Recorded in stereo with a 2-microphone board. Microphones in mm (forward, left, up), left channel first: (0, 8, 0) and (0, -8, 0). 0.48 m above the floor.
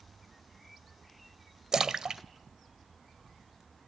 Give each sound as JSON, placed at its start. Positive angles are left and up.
{"t": 1.7, "sound": "a splash", "side_deg": -45, "distance_m": 0.9}